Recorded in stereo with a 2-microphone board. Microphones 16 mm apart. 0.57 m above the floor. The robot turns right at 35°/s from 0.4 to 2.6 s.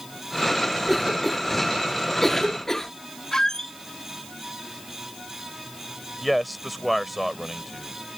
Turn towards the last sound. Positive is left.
turn(degrees=-5)  # may be behind; listen again after turning